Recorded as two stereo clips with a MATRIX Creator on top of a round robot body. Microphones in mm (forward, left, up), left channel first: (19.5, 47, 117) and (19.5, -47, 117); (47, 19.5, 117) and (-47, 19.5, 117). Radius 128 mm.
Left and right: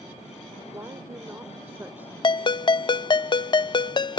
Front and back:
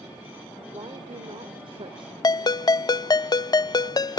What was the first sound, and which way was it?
A woman speaking, 145° right.